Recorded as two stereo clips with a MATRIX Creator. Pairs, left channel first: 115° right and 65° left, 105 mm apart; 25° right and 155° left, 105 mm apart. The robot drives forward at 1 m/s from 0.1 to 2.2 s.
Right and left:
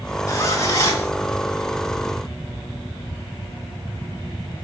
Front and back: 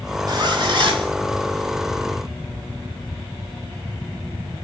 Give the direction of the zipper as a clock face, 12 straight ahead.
6 o'clock.